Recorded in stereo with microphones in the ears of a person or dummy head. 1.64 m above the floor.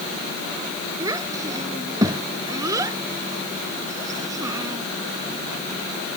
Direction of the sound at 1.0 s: 20° right (ahead or behind).